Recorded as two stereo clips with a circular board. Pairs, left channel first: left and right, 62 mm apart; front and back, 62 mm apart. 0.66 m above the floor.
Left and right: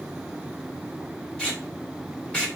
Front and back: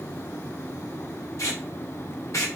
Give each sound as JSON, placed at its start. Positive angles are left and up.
{"t": 1.4, "sound": "tape being pulled", "azimuth_deg": 20, "distance_m": 2.0}